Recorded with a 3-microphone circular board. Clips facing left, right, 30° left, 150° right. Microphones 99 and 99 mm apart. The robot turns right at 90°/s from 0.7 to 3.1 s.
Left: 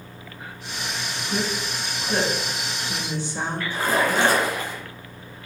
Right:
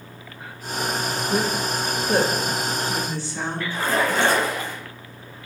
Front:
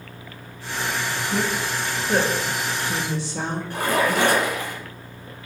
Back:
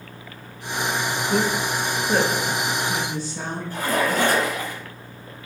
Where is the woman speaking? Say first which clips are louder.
Right 3 dB, back 3 dB; 145° right, 2.0 m; by 3.6 s 15° left, 2.0 m.